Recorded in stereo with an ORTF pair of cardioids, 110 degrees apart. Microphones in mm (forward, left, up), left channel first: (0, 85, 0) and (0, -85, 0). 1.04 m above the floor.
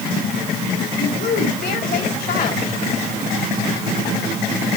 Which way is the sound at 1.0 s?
65° left.